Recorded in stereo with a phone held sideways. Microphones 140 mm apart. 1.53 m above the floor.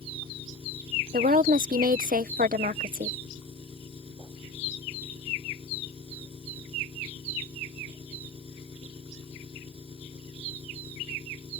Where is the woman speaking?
80° right.